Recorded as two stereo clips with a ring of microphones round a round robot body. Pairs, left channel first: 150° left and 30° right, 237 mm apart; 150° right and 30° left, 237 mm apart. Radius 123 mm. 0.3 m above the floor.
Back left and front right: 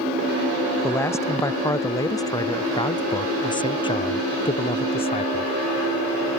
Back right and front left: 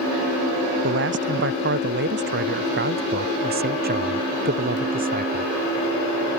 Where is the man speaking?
70° left; by 5.5 s 85° left.